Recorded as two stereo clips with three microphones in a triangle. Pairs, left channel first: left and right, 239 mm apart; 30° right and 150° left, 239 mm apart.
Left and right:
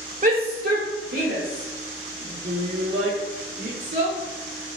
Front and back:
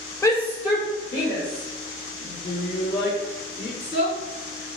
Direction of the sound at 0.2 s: 100° right.